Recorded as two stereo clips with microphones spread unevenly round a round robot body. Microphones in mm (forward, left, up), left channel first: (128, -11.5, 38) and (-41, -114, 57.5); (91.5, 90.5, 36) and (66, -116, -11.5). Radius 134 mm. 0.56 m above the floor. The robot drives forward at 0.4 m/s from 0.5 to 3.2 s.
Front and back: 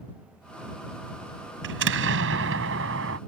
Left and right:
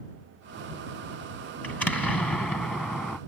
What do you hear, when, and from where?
1.6 s an explosion: 170° left